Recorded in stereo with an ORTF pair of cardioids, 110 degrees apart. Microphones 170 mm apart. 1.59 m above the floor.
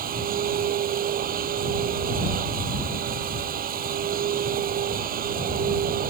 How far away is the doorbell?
I don't hear a doorbell.